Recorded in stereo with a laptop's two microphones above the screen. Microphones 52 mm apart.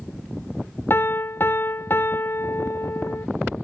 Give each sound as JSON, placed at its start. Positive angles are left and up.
{"t": 0.9, "sound": "a piano", "side_deg": 45, "distance_m": 0.6}